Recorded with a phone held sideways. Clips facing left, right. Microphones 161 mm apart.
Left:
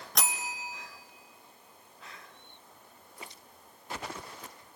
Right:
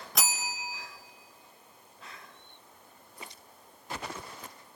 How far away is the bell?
About 0.7 m.